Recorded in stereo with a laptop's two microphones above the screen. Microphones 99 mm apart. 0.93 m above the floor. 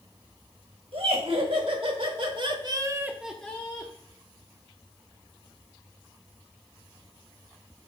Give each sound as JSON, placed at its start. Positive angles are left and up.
{"t": 0.9, "sound": "laughter", "side_deg": -75, "distance_m": 1.6}